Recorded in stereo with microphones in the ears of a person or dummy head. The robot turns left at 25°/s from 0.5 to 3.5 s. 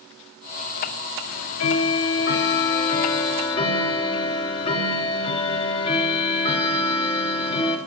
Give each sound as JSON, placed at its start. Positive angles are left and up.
{"t": 1.3, "sound": "ticking", "azimuth_deg": 90, "distance_m": 0.7}